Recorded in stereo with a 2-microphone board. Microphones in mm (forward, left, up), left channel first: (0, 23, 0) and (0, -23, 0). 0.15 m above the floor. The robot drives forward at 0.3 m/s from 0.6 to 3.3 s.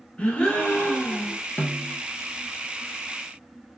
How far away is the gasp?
About 1.6 m.